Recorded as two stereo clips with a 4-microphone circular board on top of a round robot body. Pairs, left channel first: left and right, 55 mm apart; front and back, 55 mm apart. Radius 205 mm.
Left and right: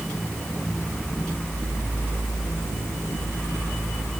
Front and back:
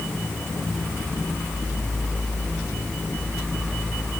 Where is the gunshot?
I don't hear a gunshot.